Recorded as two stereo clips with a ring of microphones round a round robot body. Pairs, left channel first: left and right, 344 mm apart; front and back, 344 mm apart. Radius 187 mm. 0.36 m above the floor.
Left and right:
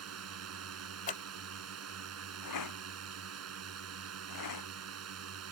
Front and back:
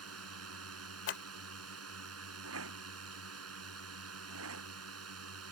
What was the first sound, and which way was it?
A drone, 135° right.